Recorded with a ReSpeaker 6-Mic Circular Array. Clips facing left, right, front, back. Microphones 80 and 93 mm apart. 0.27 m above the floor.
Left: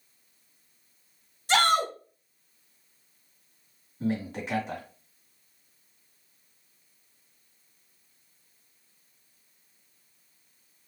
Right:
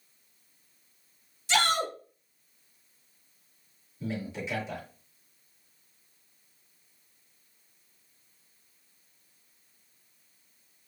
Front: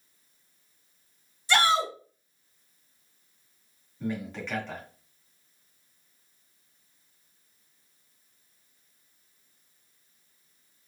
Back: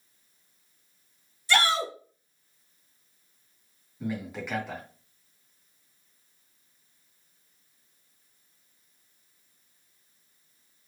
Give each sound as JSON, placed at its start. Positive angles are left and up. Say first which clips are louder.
{"t": 1.5, "sound": "a shout", "louder": "left 4 dB, front 2 dB", "azimuth_deg": 65, "distance_m": 2.0}
{"t": 4.0, "sound": "a man speaking", "louder": "left 5 dB, even", "azimuth_deg": 100, "distance_m": 2.5}